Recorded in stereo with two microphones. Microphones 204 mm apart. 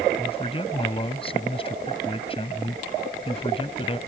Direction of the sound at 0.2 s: 25° left (ahead or behind).